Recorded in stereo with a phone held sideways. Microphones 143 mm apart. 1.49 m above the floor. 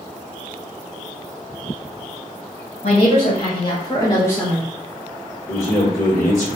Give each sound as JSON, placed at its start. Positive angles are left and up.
{"t": 2.8, "sound": "a woman speaking", "side_deg": 65, "distance_m": 1.3}
{"t": 5.5, "sound": "a man speaking", "side_deg": 85, "distance_m": 1.6}